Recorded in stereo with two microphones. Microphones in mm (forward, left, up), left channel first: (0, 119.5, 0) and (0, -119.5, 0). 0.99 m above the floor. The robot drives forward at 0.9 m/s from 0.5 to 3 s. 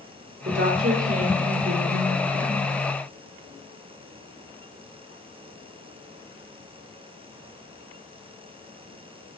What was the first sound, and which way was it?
A woman speaking, 60° right (ahead or behind).